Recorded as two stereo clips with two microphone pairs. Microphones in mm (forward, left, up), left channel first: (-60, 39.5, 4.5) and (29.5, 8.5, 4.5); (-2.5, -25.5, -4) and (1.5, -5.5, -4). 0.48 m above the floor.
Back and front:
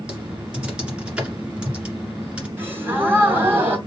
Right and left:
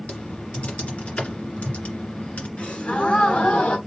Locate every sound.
0.1 s typing on a keyboard: 100° right, 2 m
2.6 s a gasp: 90° right, 2.5 m